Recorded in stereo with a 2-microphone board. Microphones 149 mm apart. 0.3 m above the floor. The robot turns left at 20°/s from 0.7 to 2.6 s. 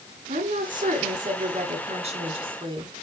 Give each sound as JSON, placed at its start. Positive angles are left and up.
{"t": 0.3, "sound": "a woman speaking", "azimuth_deg": -105, "distance_m": 2.5}